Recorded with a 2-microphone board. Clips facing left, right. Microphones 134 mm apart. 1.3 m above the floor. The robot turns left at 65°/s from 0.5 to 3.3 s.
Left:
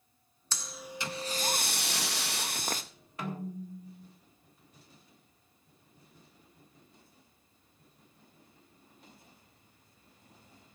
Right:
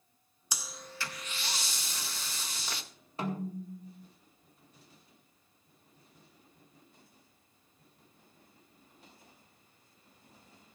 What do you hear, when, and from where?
0.5 s breathing: 165° right, 0.7 m; by 2.8 s 45° left, 0.7 m
3.2 s a snare drum: 30° right (ahead or behind), 1.7 m; by 4.1 s 25° right (ahead or behind), 1.7 m